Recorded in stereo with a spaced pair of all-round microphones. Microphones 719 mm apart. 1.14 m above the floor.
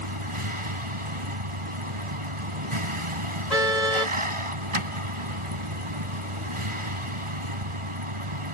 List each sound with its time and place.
0.0 s a vehicle: 45° right (ahead or behind)
3.5 s a car horn: 85° left